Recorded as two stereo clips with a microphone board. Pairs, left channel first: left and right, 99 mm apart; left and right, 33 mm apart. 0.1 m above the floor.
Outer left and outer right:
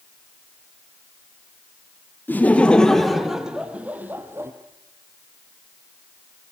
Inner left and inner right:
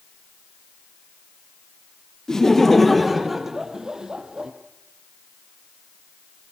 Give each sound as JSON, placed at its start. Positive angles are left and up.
{"t": 2.3, "sound": "laughter", "side_deg": 20, "distance_m": 3.0}